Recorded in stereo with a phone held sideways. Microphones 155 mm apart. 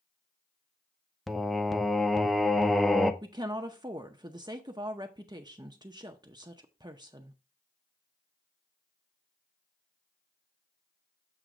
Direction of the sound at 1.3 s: Centre (ahead or behind).